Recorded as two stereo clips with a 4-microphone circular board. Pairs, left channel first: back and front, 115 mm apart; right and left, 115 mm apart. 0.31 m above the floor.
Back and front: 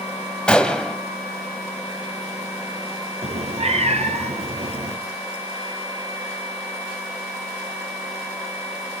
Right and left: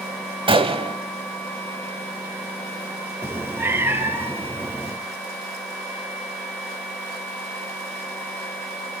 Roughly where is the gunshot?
Left.